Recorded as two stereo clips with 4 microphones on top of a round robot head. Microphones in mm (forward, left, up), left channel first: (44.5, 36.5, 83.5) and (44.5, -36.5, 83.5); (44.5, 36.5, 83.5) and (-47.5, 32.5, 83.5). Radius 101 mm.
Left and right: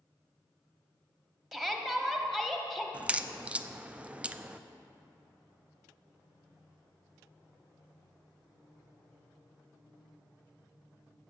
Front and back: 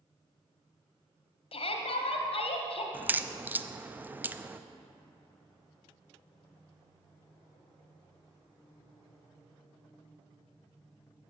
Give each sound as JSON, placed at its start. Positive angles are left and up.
{"t": 1.5, "sound": "a shout", "azimuth_deg": 0, "distance_m": 1.4}
{"t": 2.9, "sound": "a crack", "azimuth_deg": -135, "distance_m": 0.5}